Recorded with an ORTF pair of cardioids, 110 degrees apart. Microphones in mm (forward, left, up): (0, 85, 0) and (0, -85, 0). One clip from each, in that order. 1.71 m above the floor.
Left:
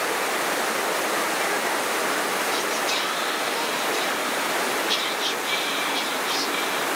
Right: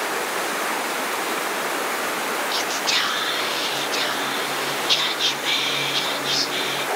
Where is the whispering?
60° right, 0.9 m.